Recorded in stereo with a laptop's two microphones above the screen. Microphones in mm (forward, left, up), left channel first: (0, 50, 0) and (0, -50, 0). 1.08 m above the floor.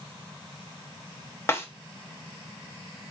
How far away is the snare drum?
About 1.0 m.